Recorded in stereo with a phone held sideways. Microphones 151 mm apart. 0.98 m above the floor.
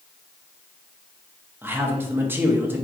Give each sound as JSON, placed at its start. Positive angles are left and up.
{"t": 1.6, "sound": "a man speaking", "side_deg": -15, "distance_m": 0.9}